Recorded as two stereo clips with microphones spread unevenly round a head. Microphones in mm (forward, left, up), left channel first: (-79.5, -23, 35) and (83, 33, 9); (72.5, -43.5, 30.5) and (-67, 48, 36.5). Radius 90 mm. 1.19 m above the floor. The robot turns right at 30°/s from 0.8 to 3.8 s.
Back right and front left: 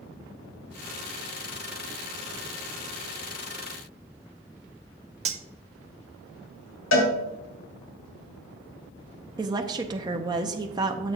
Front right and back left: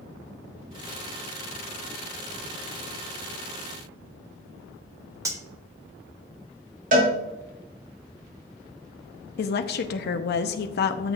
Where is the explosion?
No explosion in this recording.